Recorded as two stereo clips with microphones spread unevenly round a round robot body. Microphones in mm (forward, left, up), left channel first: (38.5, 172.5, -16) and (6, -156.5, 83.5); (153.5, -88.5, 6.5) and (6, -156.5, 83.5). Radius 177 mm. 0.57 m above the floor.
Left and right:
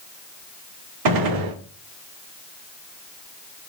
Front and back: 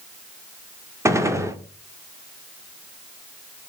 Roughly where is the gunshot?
Right.